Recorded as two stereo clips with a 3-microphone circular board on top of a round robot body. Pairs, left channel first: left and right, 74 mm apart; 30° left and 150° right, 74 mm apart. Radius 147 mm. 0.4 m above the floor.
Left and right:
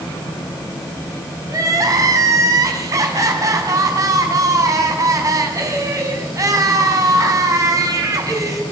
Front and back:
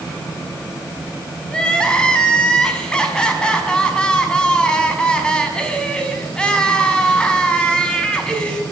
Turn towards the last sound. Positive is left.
turn(degrees=-50)